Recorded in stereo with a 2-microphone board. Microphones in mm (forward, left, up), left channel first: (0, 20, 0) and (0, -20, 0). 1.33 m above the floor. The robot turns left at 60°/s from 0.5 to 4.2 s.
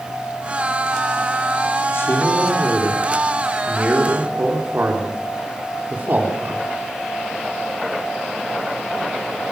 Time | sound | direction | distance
1.9 | a man speaking | 85° left | 4 m